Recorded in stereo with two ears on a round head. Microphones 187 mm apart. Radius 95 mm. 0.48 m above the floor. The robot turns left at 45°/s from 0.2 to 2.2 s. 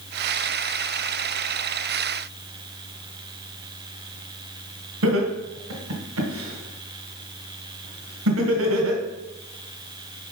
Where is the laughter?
70° right (ahead or behind), 2 m.